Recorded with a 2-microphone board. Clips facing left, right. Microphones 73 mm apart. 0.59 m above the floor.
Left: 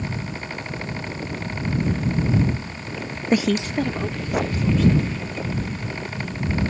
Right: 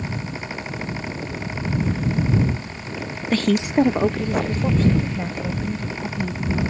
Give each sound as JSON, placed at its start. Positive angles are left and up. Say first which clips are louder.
{"t": 3.3, "sound": "a woman speaking", "louder": "right 2 dB", "side_deg": 25}